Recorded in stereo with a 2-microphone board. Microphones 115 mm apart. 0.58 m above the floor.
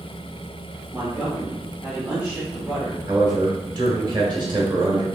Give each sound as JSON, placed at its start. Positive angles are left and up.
{"t": 0.9, "sound": "a man speaking", "side_deg": -10, "distance_m": 1.2}
{"t": 3.1, "sound": "a man speaking", "side_deg": -35, "distance_m": 1.3}